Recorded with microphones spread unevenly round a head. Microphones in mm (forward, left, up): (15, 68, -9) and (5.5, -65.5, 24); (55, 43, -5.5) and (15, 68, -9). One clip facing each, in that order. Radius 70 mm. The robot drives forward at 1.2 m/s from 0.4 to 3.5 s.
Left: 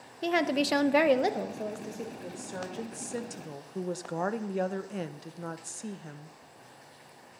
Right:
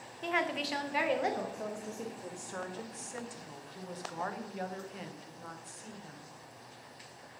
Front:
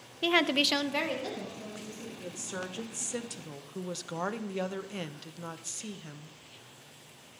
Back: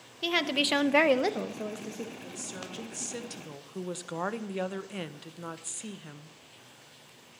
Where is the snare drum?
I don't hear a snare drum.